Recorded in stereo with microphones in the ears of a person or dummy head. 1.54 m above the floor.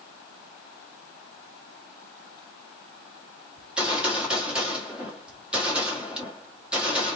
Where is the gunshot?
10° right (ahead or behind), 1.7 m.